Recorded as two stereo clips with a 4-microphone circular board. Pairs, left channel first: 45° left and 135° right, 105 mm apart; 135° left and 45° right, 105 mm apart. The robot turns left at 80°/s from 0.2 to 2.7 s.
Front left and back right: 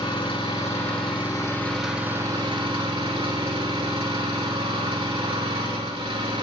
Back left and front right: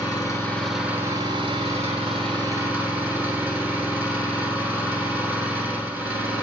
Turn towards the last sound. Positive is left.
turn(degrees=-115)